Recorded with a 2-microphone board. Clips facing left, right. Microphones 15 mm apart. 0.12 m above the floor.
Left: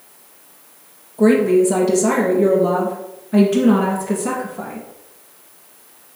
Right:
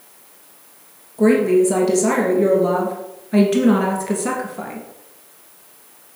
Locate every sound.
1.2 s a woman speaking: 5° right (ahead or behind), 2.5 m; by 4.8 s 40° right (ahead or behind), 2 m